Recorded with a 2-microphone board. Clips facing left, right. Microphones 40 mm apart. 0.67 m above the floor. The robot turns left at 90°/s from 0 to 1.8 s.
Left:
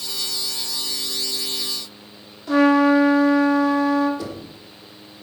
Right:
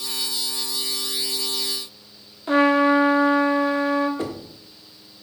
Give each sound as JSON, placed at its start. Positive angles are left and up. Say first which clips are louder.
{"t": 2.5, "sound": "a trumpet", "louder": "left 2 dB", "side_deg": -25, "distance_m": 1.7}
{"t": 4.2, "sound": "knocking", "louder": "right 2 dB", "side_deg": -35, "distance_m": 1.4}